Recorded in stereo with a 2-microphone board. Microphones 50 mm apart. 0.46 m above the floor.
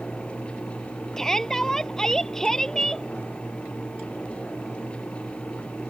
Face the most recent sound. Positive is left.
turn(degrees=10)  # may be behind; listen again after turning